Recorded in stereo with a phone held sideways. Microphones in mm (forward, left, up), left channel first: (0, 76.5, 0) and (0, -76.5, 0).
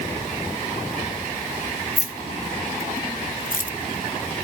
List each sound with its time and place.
2.0 s keys jangling: 50° left (ahead or behind), 1.8 m; by 3.7 s 55° left (ahead or behind), 0.7 m